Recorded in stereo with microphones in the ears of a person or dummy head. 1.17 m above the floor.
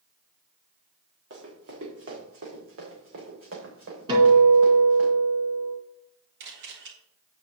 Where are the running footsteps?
75° right (ahead or behind), 5 m; by 5.1 s 70° right (ahead or behind), 6.5 m.